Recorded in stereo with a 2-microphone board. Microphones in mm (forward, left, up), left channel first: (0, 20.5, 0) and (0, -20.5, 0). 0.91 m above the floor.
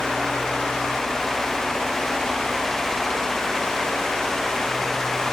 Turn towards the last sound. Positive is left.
No sound to turn to.